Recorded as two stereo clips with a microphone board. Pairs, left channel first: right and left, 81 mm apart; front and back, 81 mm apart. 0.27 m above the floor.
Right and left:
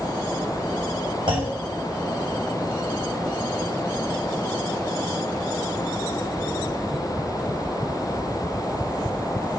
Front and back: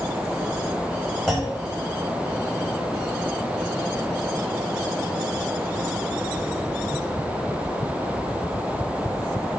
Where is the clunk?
85° left, 3 m.